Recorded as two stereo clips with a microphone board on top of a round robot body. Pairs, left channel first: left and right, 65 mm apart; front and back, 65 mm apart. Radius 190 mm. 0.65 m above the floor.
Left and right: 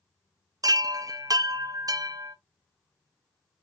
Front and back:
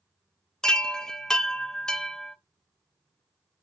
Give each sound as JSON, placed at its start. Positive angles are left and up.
{"t": 0.6, "sound": "a chime", "azimuth_deg": -80, "distance_m": 0.6}